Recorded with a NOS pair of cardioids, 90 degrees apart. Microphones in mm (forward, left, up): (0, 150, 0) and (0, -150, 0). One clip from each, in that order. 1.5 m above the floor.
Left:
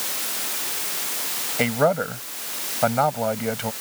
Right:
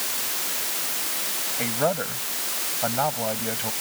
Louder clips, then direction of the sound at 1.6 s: Left 5 dB; 70° left.